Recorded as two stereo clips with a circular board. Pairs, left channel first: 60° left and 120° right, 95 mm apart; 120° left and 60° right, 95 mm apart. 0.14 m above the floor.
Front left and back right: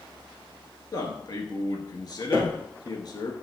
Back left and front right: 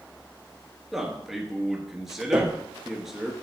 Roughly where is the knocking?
Ahead.